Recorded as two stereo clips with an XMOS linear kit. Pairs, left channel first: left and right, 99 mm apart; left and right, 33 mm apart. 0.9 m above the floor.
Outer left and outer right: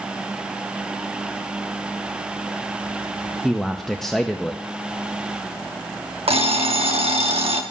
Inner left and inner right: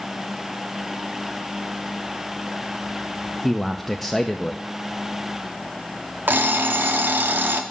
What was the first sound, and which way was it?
A man speaking, centre (ahead or behind).